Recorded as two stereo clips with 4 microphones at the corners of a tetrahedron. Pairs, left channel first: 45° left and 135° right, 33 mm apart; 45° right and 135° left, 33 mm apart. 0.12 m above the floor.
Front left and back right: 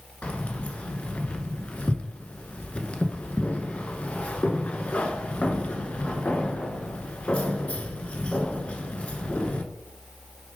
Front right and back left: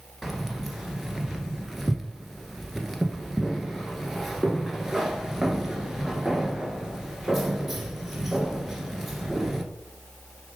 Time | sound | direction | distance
0.2 | keys jangling | 50° left | 1.4 m